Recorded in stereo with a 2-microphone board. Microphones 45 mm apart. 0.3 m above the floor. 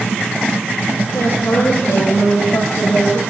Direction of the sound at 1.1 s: 80° left.